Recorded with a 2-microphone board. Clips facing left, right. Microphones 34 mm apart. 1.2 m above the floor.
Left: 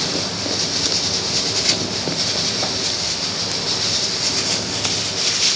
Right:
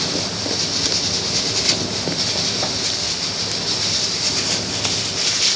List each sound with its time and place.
Only background noise.